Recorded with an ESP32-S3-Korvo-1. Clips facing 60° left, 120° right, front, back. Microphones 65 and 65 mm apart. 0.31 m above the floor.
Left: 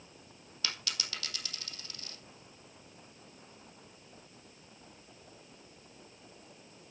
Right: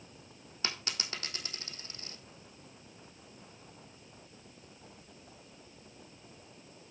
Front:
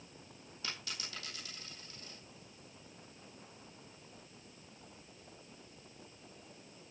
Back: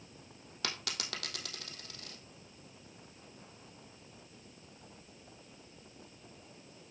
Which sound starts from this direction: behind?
A dropped coin, at 0.6 s.